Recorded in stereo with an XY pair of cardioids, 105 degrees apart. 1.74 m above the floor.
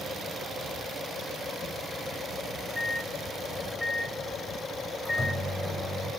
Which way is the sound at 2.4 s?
15° left.